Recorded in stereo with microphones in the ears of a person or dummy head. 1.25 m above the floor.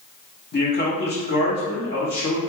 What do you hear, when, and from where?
0.5 s a man speaking: 55° left (ahead or behind), 1.7 m